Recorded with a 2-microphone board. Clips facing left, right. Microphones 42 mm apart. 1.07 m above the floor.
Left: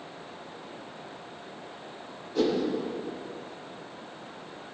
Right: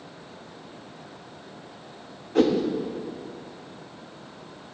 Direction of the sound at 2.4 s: 55° right (ahead or behind).